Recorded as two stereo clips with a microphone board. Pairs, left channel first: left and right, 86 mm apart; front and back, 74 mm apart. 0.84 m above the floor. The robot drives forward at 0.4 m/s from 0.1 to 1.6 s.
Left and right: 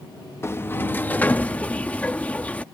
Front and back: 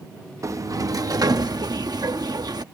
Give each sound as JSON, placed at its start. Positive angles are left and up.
{"t": 0.4, "sound": "a sliding door", "azimuth_deg": 145}